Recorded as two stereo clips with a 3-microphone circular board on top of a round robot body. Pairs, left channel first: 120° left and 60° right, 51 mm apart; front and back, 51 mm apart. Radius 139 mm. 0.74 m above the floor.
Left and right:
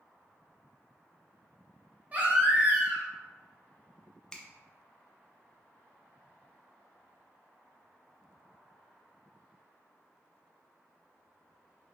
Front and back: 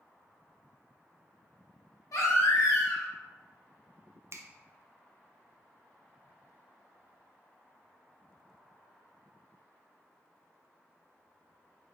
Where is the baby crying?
5° left, 1.3 m.